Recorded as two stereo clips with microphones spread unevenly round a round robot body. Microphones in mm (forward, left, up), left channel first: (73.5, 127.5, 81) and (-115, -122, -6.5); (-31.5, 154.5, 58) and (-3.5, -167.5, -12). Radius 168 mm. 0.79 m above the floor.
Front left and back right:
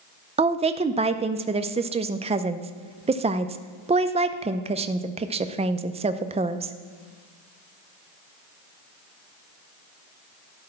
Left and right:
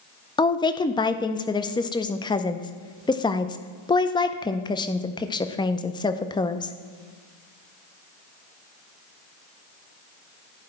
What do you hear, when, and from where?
0.4 s a woman speaking: straight behind, 0.5 m